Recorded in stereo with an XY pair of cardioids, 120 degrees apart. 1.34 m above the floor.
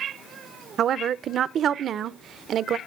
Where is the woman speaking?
50° right, 0.6 m.